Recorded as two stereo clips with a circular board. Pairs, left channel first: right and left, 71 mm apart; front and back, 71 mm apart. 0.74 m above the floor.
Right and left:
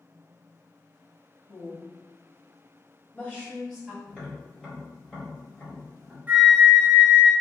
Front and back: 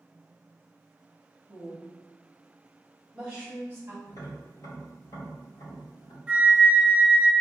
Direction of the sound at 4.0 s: 15° right.